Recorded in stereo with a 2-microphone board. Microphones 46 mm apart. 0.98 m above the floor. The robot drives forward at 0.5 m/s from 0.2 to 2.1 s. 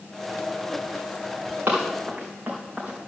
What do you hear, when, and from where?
1.7 s running footsteps: 45° right (ahead or behind), 3.5 m; by 3.1 s 25° right (ahead or behind), 4 m